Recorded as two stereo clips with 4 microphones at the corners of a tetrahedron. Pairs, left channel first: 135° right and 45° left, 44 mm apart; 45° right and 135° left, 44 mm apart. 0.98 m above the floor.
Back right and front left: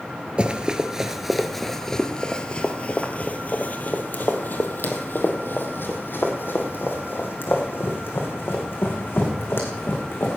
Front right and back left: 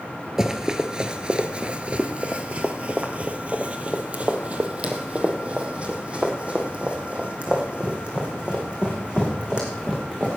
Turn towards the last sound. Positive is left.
turn(degrees=-160)